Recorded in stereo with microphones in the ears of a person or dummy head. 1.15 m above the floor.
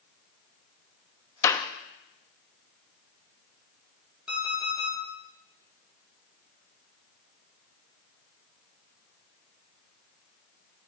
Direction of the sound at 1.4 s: 20° left (ahead or behind).